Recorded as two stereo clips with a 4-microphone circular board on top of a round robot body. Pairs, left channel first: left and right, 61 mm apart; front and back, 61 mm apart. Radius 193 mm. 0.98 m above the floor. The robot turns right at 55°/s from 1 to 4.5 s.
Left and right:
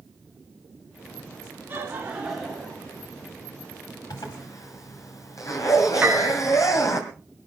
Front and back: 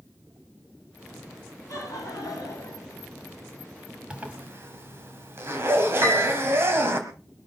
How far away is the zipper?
About 2.0 m.